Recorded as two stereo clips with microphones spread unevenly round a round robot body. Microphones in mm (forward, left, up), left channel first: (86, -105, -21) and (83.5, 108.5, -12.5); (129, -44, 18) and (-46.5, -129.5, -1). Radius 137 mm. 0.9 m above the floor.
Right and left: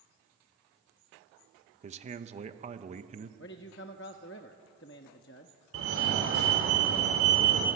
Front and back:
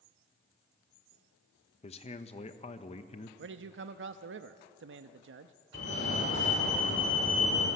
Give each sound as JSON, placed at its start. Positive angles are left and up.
{"t": 1.8, "sound": "a man speaking", "azimuth_deg": 65, "distance_m": 1.0}
{"t": 3.4, "sound": "a man speaking", "azimuth_deg": -140, "distance_m": 0.9}
{"t": 5.7, "sound": "a fire alarm", "azimuth_deg": 75, "distance_m": 5.0}